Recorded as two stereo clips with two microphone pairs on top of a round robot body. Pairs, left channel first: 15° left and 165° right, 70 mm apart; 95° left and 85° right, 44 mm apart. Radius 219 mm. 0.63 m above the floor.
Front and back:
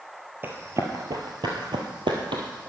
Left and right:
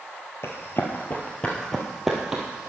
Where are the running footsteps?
135° left, 1.3 m; by 2.7 s 155° right, 1.6 m.